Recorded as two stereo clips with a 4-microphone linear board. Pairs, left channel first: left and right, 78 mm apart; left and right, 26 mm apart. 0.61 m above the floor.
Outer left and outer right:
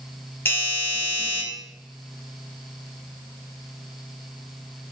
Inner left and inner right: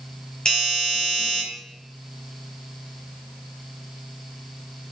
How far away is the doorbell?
About 4.5 m.